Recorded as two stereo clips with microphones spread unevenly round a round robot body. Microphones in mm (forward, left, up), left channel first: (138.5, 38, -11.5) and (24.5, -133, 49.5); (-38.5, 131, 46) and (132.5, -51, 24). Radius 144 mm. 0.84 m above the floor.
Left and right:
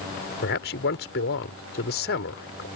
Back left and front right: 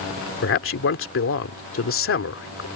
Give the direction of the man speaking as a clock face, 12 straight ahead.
9 o'clock.